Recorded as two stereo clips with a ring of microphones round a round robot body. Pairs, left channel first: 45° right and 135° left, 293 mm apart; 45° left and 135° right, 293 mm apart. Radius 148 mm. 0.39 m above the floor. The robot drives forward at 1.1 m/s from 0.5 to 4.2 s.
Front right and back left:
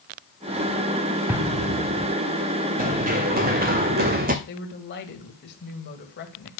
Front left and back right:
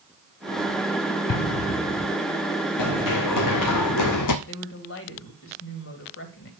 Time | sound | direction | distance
1.3 | an explosion | 50° left | 1.4 m
2.8 | running footsteps | 70° left | 2 m
4.5 | a woman speaking | 5° left | 2.5 m